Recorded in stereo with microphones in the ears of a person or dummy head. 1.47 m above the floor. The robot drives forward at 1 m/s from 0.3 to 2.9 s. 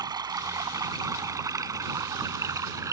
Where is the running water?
20° right (ahead or behind); by 2.9 s 15° right (ahead or behind).